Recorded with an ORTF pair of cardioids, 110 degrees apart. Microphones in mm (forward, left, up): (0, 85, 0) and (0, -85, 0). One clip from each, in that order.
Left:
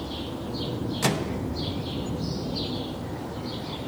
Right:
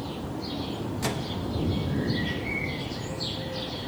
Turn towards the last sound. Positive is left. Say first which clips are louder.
# left 5 dB
turn(degrees=30)